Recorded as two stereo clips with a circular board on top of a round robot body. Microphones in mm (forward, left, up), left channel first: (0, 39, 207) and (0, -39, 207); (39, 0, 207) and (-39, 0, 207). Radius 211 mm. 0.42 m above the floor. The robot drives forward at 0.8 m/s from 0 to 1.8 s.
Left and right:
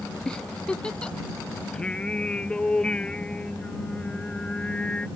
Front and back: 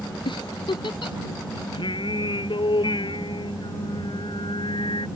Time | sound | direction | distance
0.2 | a giggle | 10° left | ?
1.7 | singing | 10° left | ?